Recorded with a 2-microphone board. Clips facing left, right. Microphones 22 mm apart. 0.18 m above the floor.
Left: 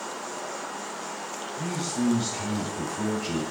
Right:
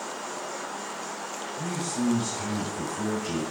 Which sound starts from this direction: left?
A man speaking, at 1.6 s.